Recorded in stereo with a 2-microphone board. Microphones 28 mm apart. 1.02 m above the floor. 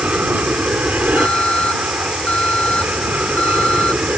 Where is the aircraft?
65° right (ahead or behind).